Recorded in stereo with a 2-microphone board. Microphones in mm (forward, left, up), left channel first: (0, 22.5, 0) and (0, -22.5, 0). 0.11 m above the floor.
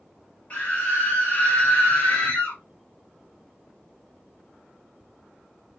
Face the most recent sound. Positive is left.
turn(degrees=20)  # may be behind; listen again after turning